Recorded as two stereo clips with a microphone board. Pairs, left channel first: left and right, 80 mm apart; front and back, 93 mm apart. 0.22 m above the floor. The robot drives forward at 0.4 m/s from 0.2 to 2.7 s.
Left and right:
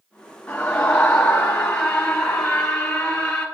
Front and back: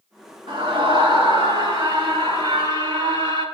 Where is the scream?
165° left, 2.5 m; by 3.5 s 170° left, 3.5 m.